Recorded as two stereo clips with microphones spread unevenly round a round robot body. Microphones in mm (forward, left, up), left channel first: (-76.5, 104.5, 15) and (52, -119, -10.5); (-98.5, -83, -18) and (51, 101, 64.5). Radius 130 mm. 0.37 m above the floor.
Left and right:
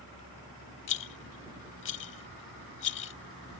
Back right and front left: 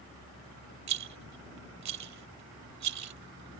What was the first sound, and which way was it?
A rattle, 75° left.